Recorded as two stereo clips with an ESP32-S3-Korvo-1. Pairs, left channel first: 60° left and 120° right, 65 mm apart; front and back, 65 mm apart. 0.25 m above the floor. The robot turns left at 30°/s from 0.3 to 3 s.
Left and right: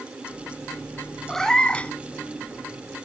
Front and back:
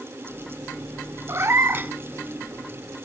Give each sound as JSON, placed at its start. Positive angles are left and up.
{"t": 1.3, "sound": "a cat meowing", "azimuth_deg": 145, "distance_m": 0.6}